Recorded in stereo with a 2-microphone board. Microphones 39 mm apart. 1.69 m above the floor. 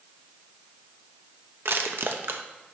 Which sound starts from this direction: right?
Crushing, at 1.6 s.